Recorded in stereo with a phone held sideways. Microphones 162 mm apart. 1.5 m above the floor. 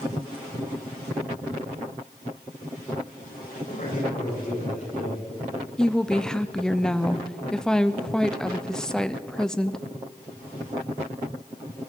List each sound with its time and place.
3.7 s a man speaking: 60° left (ahead or behind), 6.5 m
5.8 s a woman speaking: 5° left (ahead or behind), 0.6 m